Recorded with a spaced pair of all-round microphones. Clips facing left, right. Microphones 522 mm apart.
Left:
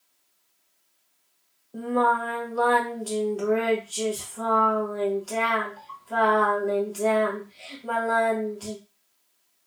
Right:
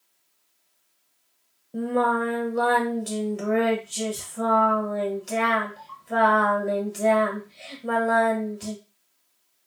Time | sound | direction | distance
1.7 | singing | 45° right (ahead or behind) | 0.7 m